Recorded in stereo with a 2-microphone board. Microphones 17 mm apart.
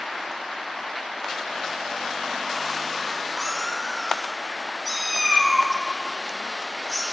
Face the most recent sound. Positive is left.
turn(degrees=-5)  # may be behind; listen again after turning